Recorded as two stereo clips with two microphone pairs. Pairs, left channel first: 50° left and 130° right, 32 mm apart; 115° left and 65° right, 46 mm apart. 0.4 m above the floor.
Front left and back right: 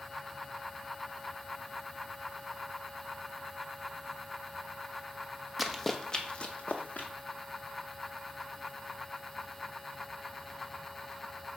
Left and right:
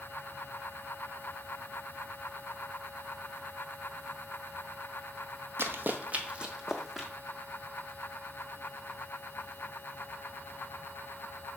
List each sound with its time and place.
5.6 s running footsteps: 45° right, 0.8 m; by 7.1 s 20° left, 1.2 m